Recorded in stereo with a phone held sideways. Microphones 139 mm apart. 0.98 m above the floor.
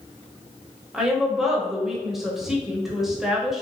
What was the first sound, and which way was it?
A woman speaking, 5° right (ahead or behind).